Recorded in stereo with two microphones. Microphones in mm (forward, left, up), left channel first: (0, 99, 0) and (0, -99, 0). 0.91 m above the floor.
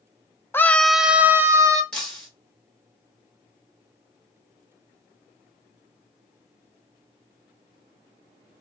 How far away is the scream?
About 0.5 m.